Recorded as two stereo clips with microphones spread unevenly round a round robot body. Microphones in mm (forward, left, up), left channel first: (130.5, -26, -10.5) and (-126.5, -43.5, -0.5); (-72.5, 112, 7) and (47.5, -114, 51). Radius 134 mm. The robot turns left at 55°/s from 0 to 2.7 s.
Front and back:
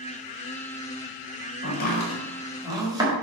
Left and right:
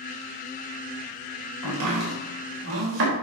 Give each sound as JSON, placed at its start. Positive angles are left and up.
{"t": 1.6, "sound": "chopping", "azimuth_deg": -40, "distance_m": 4.0}